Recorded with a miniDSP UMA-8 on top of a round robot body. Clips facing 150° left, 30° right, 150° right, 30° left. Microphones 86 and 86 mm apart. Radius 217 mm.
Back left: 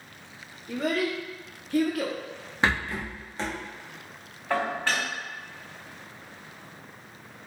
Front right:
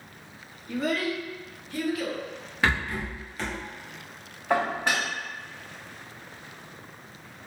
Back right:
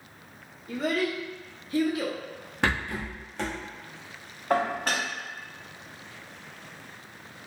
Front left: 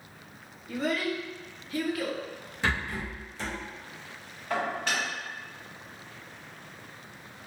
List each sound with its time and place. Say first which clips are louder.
0.7 s a child speaking: even, back right 2 dB; 175° left, 1.9 m; by 2.2 s 140° left, 1.0 m
2.6 s a rattle: even, back right 2 dB; 150° right, 1.2 m
4.5 s dishes clattering: front right 2 dB, back right 4 dB; 100° right, 0.7 m